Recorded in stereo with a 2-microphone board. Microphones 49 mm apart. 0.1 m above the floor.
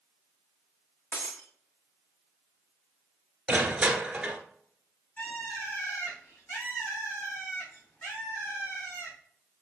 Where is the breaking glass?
55° left (ahead or behind), 1.4 m.